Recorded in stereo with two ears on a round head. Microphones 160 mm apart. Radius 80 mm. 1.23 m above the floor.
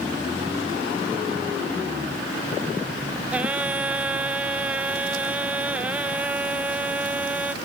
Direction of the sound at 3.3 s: 10° right (ahead or behind).